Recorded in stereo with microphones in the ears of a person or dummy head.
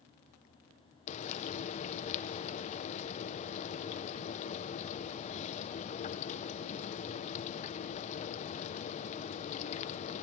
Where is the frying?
35° left (ahead or behind), 0.5 m.